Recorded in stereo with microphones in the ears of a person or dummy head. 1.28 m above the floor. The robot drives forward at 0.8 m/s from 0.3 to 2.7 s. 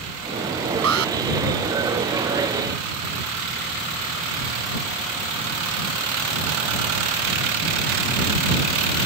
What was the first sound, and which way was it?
An alarm, 85° right.